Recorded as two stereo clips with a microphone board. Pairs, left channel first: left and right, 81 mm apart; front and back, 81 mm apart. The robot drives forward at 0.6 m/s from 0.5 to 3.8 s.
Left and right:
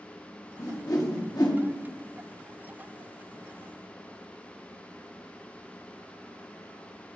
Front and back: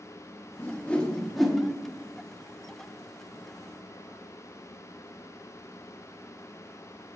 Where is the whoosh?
55° left, 1.2 m; by 1.6 s 95° left, 1.1 m.